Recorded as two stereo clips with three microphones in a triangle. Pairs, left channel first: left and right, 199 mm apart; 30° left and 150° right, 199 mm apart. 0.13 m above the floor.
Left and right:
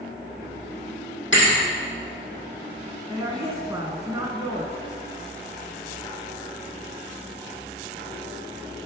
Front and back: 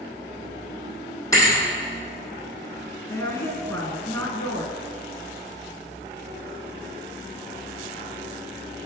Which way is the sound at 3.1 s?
35° right.